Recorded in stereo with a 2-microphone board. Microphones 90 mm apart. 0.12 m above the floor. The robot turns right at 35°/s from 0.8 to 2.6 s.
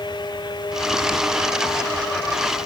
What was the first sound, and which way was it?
Only background noise.